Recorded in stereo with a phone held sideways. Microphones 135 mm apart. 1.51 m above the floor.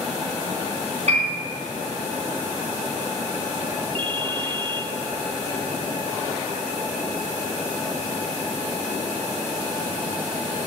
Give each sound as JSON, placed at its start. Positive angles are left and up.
{"t": 1.1, "sound": "a piano", "side_deg": -55, "distance_m": 4.0}
{"t": 4.0, "sound": "a ringtone", "side_deg": -40, "distance_m": 0.7}